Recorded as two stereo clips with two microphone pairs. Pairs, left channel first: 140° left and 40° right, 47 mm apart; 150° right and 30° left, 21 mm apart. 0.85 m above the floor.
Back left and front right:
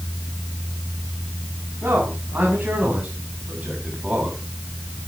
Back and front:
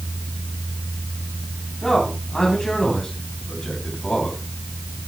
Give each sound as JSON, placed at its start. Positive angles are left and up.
{"t": 1.8, "sound": "a man speaking", "azimuth_deg": -85, "distance_m": 7.0}